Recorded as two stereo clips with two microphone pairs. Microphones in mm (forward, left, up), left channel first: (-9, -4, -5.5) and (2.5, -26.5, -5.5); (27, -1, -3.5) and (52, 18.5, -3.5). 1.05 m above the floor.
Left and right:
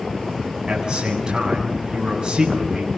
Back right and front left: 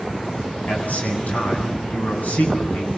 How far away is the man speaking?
About 8 m.